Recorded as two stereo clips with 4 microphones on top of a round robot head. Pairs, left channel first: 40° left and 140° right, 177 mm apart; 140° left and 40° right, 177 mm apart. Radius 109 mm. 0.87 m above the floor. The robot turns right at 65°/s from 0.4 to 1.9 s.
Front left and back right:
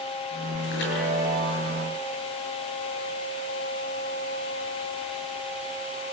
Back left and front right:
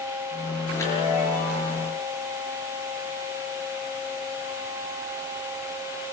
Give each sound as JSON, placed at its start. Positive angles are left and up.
{"t": 0.7, "sound": "a chime", "azimuth_deg": 55, "distance_m": 7.0}